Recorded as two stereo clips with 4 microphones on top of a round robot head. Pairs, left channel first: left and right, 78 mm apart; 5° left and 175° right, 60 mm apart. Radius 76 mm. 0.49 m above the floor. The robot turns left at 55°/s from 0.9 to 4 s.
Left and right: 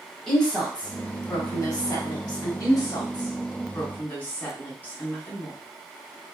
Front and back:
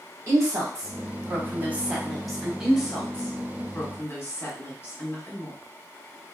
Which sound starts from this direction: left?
A woman speaking, at 2.6 s.